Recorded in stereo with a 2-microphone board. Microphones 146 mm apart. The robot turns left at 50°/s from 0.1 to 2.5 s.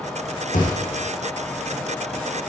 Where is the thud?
65° left (ahead or behind), 3.5 m; by 1.0 s 40° left (ahead or behind), 3.5 m.